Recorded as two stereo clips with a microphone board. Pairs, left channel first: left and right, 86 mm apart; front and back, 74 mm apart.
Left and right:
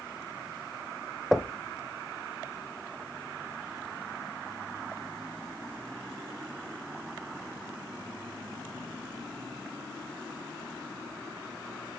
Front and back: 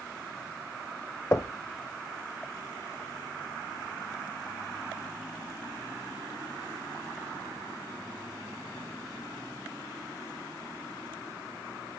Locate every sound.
1.3 s knocking: 10° right, 0.8 m